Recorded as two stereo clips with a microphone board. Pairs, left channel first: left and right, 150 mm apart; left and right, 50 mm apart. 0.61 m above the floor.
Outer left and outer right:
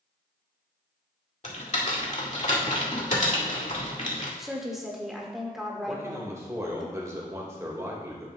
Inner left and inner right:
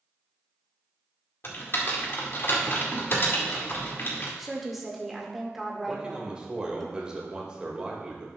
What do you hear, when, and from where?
1.4 s typing on a keyboard: 55° left (ahead or behind), 2 m
4.4 s a woman speaking: centre (ahead or behind), 1.7 m
5.9 s a man speaking: 20° right (ahead or behind), 1.9 m